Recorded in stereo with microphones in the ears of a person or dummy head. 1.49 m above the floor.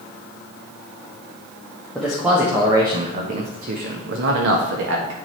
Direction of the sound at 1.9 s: Centre (ahead or behind).